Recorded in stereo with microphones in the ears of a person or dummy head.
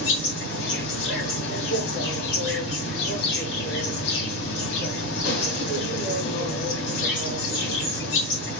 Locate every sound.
0.0 s an insect: 60° left (ahead or behind), 2.5 m